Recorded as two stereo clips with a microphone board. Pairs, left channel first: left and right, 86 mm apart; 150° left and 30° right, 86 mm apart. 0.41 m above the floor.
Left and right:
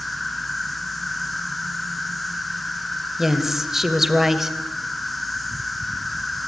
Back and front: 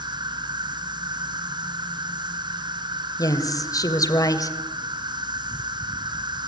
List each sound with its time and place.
0.0 s an insect: straight ahead, 1.5 m
3.2 s a woman speaking: 175° right, 2 m